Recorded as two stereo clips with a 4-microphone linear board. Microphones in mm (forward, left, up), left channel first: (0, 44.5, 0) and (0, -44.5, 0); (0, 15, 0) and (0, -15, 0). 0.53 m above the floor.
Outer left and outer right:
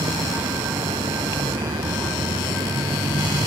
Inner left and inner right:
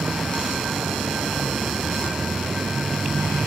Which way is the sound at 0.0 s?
85° right.